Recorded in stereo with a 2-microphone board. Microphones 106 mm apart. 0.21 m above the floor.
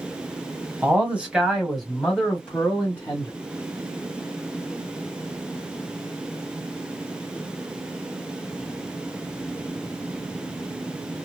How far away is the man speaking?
About 1.5 m.